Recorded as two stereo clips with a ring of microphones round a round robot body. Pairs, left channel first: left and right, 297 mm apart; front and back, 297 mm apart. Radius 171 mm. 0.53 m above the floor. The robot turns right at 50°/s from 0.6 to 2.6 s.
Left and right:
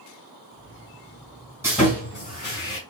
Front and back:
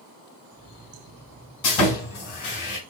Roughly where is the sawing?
Ahead.